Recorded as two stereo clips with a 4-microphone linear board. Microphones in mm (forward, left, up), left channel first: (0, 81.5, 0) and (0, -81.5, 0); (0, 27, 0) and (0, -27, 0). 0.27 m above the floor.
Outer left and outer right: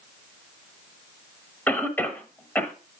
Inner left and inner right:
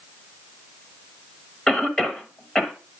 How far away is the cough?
About 0.9 m.